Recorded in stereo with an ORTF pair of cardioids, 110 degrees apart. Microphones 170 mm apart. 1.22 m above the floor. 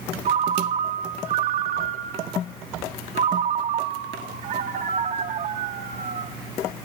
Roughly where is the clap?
I don't hear a clap.